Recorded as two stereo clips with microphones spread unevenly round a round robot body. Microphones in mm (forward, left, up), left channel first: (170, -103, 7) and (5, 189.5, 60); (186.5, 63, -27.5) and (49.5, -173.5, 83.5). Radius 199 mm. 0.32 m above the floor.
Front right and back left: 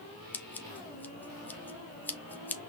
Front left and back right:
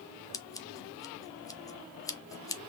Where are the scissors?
15° left, 0.7 m.